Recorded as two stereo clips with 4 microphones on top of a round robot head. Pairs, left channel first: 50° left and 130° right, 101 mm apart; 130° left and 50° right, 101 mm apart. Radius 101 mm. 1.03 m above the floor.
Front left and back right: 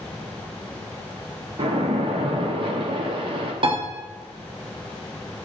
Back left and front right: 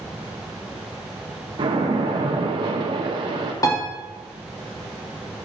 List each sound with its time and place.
1.6 s a splash: 95° right, 0.9 m
3.6 s a piano: 170° right, 1.2 m